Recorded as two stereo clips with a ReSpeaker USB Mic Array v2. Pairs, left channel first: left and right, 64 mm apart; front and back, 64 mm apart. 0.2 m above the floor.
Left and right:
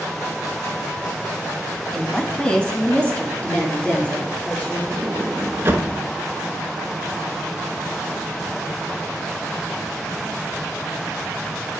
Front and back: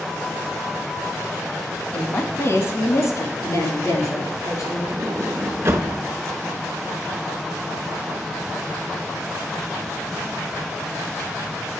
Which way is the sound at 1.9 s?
20° left.